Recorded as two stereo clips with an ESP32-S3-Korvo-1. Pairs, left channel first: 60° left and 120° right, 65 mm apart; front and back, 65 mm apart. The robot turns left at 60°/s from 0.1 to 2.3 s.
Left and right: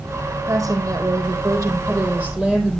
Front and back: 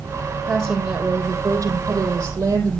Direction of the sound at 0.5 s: 85° right.